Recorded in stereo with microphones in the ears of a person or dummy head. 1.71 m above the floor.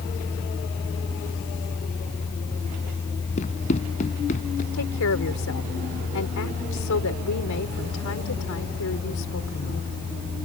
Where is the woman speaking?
85° left.